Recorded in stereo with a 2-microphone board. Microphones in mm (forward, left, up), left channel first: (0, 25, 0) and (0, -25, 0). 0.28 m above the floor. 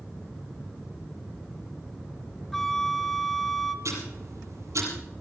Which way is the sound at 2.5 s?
5° left (ahead or behind).